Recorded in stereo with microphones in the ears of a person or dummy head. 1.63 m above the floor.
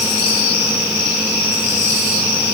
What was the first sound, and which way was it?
Only background noise.